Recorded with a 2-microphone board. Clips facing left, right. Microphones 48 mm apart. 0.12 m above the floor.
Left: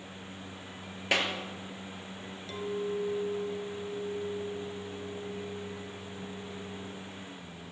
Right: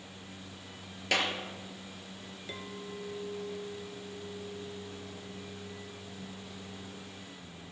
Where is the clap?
15° left (ahead or behind), 2.5 m.